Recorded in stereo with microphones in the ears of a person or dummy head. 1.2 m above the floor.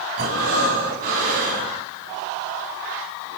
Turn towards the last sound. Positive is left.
turn(degrees=-45)  # may be behind; listen again after turning